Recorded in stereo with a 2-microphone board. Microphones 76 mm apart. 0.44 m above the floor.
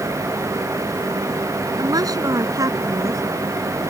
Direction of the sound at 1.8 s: 55° right (ahead or behind).